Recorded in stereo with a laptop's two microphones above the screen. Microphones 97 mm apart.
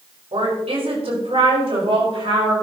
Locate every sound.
0.3 s a woman speaking: 80° right, 4.5 m; by 2.5 s 65° right (ahead or behind), 5.5 m